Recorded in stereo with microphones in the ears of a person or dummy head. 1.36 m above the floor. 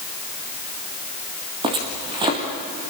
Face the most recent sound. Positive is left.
turn(degrees=-30)  # may be behind; listen again after turning